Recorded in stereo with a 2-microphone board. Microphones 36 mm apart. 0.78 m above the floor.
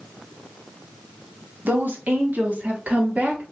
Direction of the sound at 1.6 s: 55° right (ahead or behind).